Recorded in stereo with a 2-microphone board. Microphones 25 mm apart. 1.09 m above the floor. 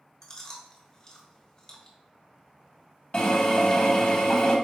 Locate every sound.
0.2 s chewing: 25° left (ahead or behind), 1.3 m
3.1 s a drill: 40° left (ahead or behind), 1.4 m